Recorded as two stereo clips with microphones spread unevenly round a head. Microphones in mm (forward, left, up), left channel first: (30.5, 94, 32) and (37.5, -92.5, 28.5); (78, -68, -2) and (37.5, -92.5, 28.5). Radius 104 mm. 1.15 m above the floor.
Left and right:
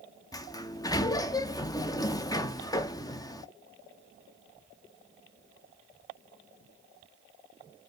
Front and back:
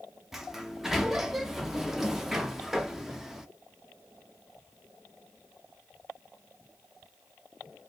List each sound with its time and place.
0.3 s a sliding door: 45° left, 0.5 m